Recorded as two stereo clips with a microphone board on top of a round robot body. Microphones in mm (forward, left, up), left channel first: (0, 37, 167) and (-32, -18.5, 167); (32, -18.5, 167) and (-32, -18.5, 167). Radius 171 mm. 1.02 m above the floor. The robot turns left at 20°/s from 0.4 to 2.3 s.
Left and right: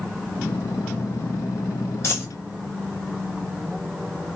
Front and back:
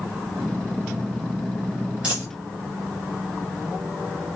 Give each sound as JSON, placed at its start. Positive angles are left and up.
{"t": 2.0, "sound": "a dropped coin", "azimuth_deg": 100, "distance_m": 1.7}